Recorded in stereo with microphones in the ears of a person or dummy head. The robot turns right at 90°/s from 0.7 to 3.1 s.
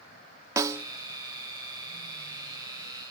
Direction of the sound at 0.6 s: 20° right (ahead or behind).